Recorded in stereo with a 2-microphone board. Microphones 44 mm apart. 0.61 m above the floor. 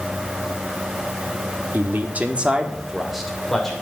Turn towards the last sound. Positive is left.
turn(degrees=10)  # may be behind; listen again after turning